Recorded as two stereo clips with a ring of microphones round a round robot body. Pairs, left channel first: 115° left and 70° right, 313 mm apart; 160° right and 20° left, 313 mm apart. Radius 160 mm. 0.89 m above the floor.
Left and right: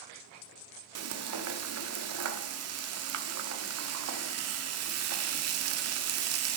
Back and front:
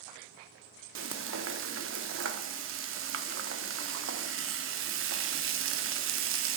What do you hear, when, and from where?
0.9 s frying: 25° right, 0.6 m